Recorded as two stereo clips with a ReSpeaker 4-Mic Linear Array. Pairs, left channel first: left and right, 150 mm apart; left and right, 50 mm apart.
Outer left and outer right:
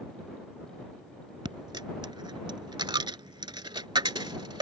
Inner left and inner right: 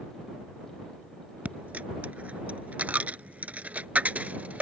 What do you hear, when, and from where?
1.4 s a dropped coin: 30° right (ahead or behind)